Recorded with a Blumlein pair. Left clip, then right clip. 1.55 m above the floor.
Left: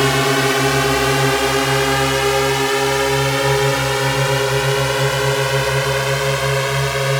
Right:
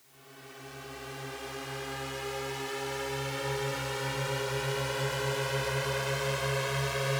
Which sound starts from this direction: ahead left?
A drone, at 0.0 s.